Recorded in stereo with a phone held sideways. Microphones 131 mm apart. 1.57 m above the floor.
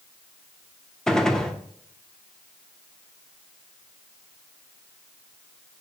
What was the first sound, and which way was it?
A gunshot, 5° left (ahead or behind).